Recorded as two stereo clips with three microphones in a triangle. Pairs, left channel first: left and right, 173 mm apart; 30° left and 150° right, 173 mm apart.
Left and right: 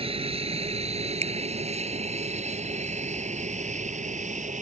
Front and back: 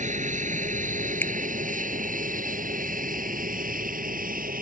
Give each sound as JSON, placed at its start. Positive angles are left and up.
{"t": 0.0, "sound": "an aircraft", "azimuth_deg": -130}
{"t": 1.2, "sound": "a finger snap", "azimuth_deg": -45}